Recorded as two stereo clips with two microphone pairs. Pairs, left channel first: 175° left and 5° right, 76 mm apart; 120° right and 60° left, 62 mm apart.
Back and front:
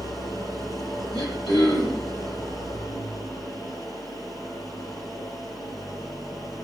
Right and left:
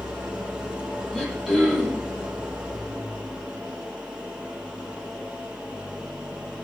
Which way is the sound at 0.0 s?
130° left.